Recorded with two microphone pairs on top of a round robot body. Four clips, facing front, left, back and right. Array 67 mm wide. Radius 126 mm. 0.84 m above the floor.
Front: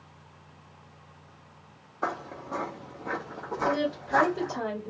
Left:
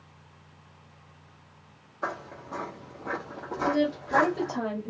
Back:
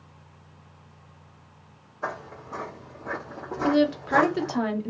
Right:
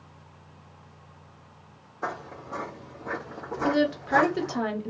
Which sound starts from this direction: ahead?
Footsteps, at 2.0 s.